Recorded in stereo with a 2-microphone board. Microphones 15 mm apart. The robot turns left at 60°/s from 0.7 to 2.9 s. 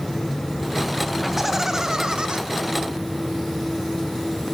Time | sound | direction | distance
1.2 | laughter | straight ahead | 1.8 m